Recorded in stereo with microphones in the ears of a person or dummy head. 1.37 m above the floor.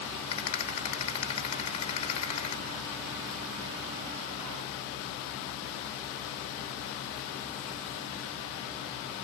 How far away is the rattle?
About 2.5 m.